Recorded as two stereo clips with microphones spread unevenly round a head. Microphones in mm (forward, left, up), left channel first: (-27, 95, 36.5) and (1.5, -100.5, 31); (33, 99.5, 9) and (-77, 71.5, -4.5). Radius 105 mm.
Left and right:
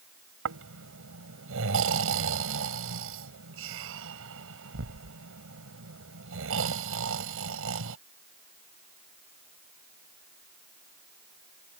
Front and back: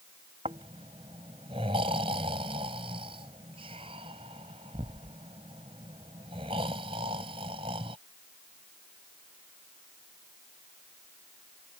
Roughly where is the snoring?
Right.